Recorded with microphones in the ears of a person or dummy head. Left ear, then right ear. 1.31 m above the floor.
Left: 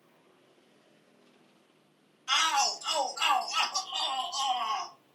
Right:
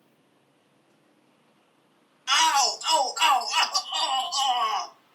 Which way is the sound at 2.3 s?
90° right.